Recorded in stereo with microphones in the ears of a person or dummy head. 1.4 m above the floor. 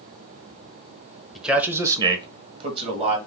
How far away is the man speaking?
About 0.7 m.